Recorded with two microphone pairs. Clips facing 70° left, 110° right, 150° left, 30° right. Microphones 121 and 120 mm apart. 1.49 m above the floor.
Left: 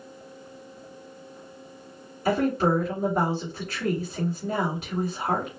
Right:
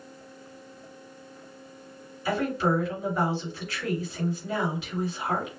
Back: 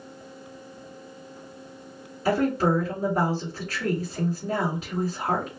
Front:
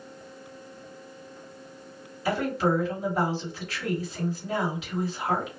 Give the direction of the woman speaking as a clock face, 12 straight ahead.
8 o'clock.